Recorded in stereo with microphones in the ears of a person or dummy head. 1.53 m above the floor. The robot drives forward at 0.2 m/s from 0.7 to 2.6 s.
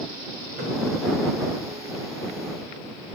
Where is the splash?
50° right (ahead or behind), 1.6 m.